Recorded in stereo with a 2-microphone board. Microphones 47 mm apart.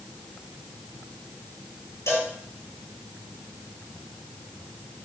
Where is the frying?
No frying in this recording.